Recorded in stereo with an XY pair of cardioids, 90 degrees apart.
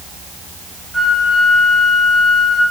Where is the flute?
10° left, 1.2 m.